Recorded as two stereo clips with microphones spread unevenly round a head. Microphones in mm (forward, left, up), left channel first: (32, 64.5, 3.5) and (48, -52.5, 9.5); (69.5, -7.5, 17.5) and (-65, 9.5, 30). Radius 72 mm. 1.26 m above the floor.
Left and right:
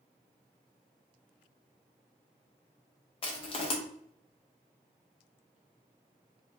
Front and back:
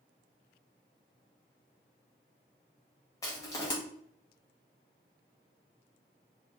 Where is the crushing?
60° left, 0.9 m.